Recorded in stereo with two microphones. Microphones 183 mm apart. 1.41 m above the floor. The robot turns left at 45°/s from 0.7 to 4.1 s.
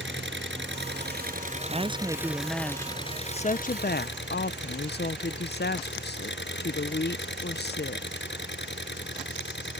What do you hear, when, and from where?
0.0 s an engine running: 100° right; by 9.8 s 105° left
1.7 s a woman speaking: 140° right; by 8.1 s 110° left